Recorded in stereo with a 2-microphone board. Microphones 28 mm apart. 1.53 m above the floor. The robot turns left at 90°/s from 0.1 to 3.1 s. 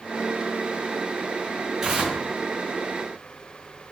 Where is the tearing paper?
25° right, 0.5 m; by 2.2 s 55° right, 0.5 m.